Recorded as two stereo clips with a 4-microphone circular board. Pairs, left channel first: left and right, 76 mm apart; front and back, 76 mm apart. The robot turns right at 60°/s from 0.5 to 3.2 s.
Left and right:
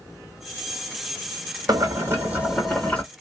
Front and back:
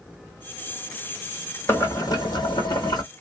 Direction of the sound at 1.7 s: 60° right.